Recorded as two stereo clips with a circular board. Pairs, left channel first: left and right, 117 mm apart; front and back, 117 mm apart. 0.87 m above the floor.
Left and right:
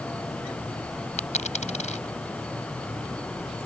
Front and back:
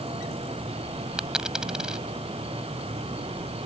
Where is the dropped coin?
95° left.